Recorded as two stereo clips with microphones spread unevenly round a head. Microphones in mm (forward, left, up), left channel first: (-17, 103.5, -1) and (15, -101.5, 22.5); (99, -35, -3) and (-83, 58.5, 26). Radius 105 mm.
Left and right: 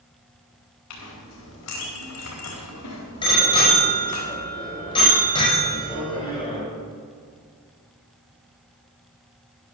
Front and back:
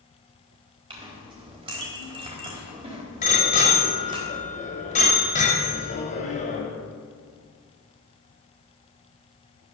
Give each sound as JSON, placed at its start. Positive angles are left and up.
{"t": 0.9, "sound": "a clink", "azimuth_deg": 90, "distance_m": 4.0}
{"t": 3.2, "sound": "a bicycle bell", "azimuth_deg": 30, "distance_m": 5.0}